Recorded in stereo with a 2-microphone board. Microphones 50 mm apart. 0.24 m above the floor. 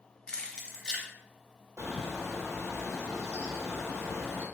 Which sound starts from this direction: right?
A bird, at 1.8 s.